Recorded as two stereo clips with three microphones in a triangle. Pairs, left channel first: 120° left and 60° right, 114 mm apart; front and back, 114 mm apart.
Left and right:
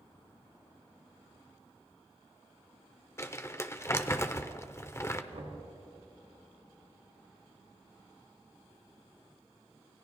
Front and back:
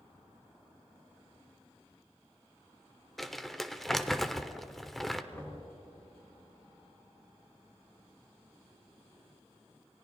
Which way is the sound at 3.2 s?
85° left.